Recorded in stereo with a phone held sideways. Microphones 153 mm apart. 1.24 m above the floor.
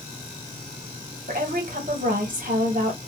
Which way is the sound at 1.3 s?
65° right (ahead or behind).